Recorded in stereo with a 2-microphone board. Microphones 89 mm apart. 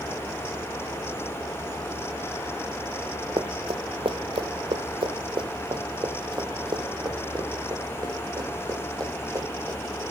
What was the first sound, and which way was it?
Running footsteps, 75° right (ahead or behind).